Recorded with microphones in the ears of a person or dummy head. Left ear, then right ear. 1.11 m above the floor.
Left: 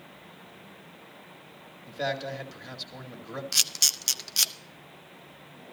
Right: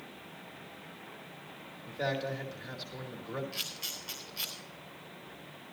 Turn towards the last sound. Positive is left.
turn(degrees=75)  # may be behind; listen again after turning